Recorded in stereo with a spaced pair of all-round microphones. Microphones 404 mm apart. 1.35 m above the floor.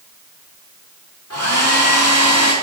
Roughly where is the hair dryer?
Left.